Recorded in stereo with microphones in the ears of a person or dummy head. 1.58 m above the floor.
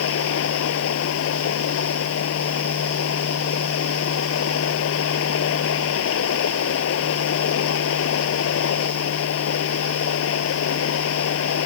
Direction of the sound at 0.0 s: 90° left.